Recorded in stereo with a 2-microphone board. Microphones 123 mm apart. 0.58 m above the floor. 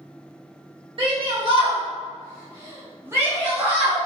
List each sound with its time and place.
1.0 s a shout: 50° right (ahead or behind), 1.5 m; by 4.0 s 10° right (ahead or behind), 1.9 m